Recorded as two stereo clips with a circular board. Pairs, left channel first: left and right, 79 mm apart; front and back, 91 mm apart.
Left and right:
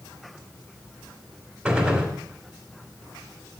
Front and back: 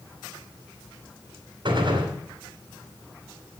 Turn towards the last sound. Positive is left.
turn(degrees=-160)